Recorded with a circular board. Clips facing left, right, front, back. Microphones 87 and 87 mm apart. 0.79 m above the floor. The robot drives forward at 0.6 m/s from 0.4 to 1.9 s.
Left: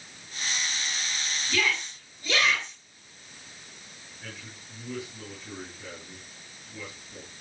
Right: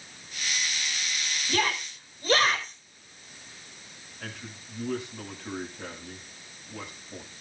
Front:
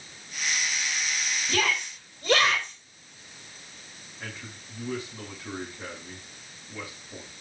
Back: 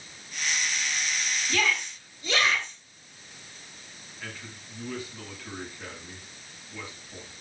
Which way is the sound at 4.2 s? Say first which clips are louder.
Right 3 dB, front 1 dB; 70° right.